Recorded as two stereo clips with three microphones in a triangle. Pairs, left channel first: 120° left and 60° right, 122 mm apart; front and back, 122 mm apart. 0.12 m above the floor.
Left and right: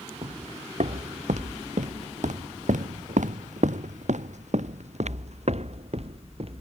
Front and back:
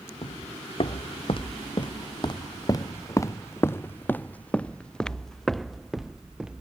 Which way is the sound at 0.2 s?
30° right.